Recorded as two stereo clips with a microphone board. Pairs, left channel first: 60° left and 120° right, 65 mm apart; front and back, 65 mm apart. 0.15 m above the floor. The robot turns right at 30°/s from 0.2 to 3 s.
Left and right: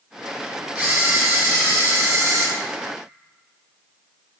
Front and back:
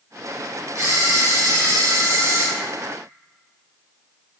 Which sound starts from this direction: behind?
A camera shutter, at 0.8 s.